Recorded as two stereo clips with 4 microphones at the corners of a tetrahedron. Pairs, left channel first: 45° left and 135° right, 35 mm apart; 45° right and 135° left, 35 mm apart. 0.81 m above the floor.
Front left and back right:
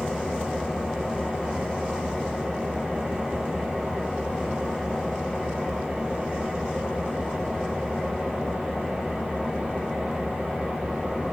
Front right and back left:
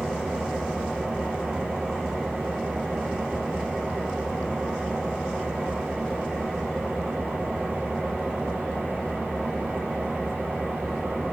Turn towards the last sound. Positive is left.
turn(degrees=150)